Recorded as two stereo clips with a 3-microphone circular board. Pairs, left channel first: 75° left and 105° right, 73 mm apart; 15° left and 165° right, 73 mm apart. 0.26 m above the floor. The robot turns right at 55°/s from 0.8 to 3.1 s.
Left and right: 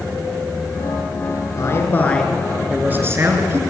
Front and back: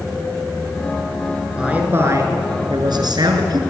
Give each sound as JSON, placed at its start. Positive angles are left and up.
{"t": 1.6, "sound": "a man speaking", "azimuth_deg": 115, "distance_m": 4.5}